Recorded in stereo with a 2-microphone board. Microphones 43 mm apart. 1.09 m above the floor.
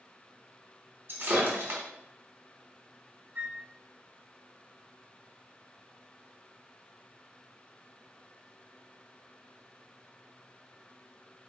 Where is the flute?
45° right (ahead or behind), 1.1 m.